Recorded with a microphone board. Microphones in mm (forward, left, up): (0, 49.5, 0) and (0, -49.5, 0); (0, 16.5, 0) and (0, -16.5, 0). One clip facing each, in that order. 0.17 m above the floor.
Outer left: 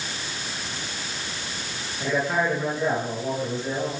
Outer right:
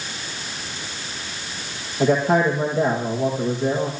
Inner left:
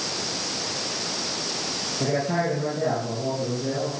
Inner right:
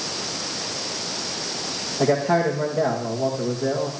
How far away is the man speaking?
About 5.5 m.